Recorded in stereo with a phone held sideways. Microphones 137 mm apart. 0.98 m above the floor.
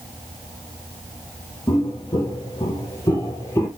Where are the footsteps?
35° left (ahead or behind), 1.2 m; by 3.7 s 20° left (ahead or behind), 1.2 m.